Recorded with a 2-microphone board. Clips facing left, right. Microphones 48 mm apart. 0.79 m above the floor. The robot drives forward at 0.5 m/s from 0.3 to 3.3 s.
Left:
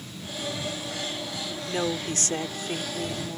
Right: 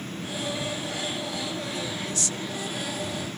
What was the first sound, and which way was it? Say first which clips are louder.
A woman speaking: left 4 dB; 50° left (ahead or behind).